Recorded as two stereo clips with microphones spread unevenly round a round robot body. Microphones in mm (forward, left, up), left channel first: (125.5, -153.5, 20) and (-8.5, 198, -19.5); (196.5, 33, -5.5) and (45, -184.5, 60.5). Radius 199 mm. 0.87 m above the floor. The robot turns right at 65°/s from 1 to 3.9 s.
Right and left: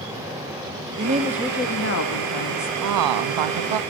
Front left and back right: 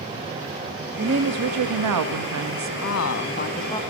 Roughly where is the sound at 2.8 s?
Left.